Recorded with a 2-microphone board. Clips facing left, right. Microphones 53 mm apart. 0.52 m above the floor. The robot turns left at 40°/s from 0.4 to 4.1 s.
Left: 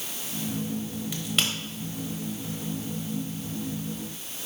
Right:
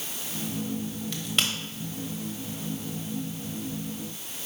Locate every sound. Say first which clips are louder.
1.1 s a crack: left 1 dB; 10° left (ahead or behind), 1.2 m; by 1.5 s 5° right (ahead or behind), 1.2 m